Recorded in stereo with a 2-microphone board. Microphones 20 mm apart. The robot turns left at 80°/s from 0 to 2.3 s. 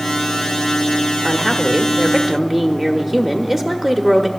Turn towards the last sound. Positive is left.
turn(degrees=-20)  # may be behind; listen again after turning